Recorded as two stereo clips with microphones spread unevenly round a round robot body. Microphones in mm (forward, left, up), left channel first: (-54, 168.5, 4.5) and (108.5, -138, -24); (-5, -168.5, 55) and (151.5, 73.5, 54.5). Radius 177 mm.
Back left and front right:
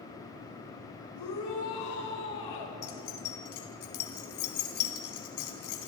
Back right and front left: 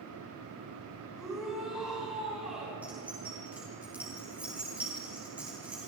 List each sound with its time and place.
1.1 s a shout: 145° left, 4.5 m
2.8 s keys jangling: 145° left, 3 m